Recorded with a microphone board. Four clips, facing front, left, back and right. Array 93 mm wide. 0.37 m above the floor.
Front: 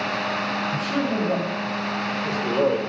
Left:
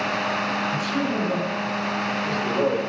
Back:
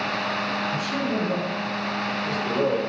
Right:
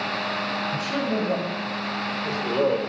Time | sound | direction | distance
0.7 | a man speaking | 50° right | 3 m